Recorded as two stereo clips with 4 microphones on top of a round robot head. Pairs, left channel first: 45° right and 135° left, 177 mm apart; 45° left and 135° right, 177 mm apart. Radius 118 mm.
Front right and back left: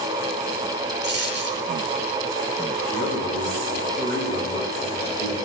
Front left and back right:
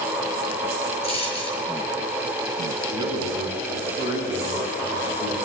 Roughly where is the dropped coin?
Left.